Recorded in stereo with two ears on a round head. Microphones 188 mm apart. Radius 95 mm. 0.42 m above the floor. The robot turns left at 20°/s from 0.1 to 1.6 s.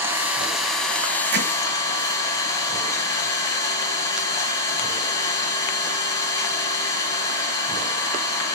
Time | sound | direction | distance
0.0 | an engine running | 165° right | 1.5 m
1.3 | hammering | 55° right (ahead or behind) | 1.1 m